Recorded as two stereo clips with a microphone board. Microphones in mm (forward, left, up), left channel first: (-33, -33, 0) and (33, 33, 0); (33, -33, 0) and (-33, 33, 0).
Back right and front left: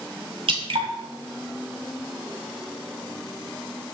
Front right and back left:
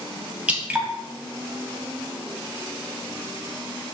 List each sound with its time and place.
0.5 s dripping: 60° left, 2.0 m